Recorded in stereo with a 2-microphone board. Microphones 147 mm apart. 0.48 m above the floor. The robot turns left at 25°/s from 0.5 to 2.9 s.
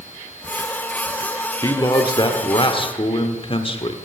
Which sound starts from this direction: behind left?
A man speaking, at 1.6 s.